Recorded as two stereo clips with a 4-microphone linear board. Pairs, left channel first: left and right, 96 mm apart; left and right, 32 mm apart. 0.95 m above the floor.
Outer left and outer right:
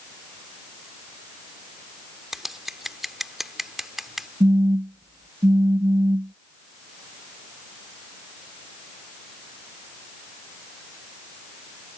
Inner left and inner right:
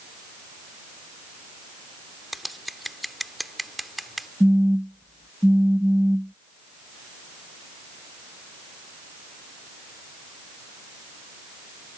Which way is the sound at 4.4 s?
55° right (ahead or behind).